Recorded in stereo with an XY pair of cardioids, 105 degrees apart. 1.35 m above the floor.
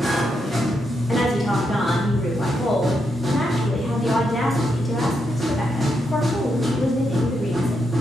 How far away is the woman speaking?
About 0.7 m.